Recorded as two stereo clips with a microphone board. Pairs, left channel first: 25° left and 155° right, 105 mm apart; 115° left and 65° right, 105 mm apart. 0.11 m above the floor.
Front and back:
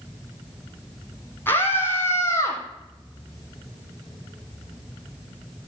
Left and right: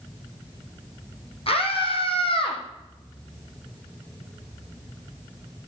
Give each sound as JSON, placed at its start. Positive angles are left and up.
{"t": 1.5, "sound": "a scream", "azimuth_deg": 90, "distance_m": 4.5}